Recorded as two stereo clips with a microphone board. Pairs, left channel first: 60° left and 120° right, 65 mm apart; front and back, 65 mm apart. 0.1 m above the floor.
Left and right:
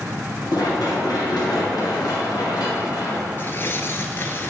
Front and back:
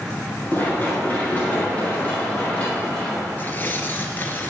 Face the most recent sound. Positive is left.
turn(degrees=35)